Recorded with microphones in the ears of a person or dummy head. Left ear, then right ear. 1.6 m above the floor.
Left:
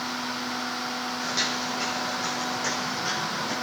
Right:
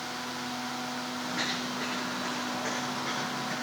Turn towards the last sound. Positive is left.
turn(degrees=80)